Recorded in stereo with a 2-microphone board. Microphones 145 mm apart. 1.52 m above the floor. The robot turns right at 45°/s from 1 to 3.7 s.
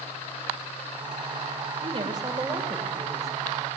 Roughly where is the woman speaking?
Ahead right.